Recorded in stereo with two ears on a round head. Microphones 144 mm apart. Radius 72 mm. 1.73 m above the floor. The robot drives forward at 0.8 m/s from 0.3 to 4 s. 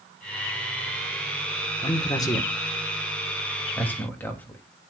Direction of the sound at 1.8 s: 30° left (ahead or behind).